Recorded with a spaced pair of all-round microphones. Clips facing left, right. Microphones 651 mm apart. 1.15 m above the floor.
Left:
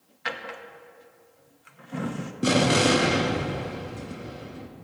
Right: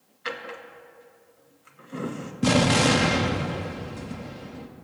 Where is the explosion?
25° right (ahead or behind), 0.6 m.